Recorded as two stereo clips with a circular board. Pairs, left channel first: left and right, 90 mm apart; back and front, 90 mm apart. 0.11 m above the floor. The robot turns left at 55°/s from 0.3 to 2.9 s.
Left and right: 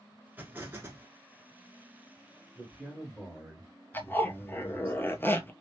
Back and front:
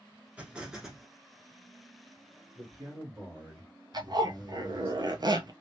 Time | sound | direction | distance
0.4 | an explosion | 50° right | 1.0 m
2.5 | a man speaking | 15° right | 2.0 m
3.9 | a zipper | 25° left | 0.5 m